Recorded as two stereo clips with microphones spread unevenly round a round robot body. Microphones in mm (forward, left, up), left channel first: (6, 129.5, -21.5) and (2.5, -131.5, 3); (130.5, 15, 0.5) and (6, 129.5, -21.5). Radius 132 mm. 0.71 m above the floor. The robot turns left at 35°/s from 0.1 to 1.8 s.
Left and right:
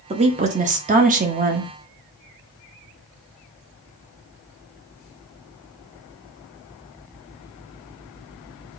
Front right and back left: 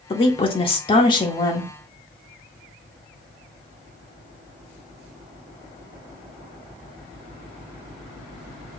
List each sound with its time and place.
0.1 s a woman speaking: 45° right, 0.6 m; by 1.7 s 105° right, 0.6 m